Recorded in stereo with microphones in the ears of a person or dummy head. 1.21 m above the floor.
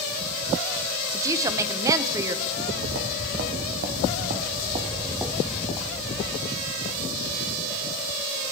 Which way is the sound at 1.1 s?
20° right (ahead or behind).